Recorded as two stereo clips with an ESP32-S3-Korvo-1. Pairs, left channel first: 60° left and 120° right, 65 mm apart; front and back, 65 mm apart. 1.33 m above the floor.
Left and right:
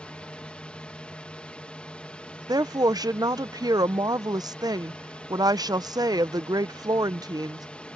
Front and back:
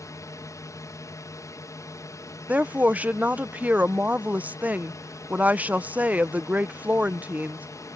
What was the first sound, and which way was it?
A drone, 10° right.